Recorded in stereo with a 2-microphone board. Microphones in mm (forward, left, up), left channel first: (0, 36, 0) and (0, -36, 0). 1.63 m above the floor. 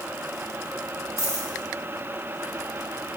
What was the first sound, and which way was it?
A dropped coin, 45° right (ahead or behind).